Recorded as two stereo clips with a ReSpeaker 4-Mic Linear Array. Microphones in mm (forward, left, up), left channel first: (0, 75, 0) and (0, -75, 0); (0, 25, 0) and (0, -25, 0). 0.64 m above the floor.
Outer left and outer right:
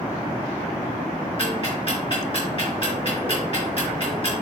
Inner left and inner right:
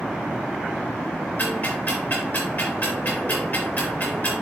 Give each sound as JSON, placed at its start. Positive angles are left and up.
{"t": 1.4, "sound": "ticking", "side_deg": 40, "distance_m": 3.5}